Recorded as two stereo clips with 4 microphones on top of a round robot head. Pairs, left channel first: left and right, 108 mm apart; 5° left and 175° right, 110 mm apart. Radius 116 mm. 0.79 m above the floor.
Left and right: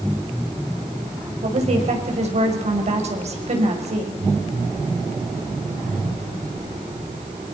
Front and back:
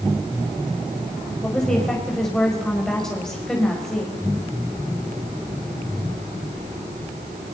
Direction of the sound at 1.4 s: 80° right.